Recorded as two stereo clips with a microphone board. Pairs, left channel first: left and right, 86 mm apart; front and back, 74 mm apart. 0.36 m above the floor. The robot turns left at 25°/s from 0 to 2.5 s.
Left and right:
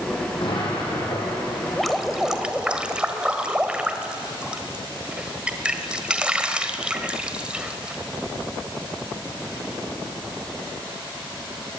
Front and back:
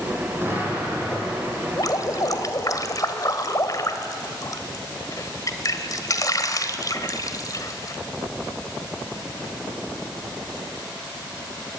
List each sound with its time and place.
0.4 s an explosion: 115° left, 7.5 m; by 1.8 s 80° left, 7.5 m
1.8 s dripping: 5° left, 1.6 m; by 8.0 s 15° right, 1.6 m